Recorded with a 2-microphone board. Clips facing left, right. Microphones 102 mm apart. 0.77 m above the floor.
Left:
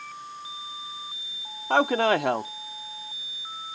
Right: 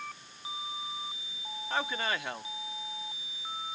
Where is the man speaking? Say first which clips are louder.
Left 12 dB; 70° left (ahead or behind).